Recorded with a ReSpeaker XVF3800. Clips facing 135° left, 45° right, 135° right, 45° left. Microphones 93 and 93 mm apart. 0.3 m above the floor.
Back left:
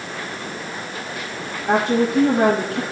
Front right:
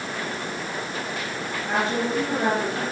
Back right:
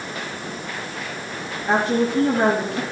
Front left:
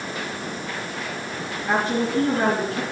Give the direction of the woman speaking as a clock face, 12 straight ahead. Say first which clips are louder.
Back left 7 dB, back right 3 dB; 7 o'clock.